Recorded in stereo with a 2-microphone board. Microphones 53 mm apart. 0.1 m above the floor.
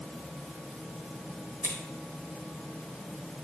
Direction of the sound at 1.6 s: 65° right (ahead or behind).